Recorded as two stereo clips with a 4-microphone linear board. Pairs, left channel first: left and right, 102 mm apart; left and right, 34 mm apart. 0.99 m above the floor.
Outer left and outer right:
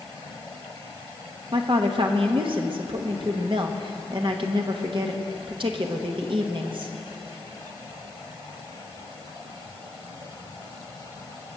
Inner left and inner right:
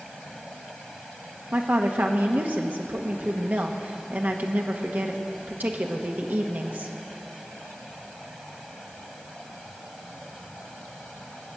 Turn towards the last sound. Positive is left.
turn(degrees=-55)  # may be behind; listen again after turning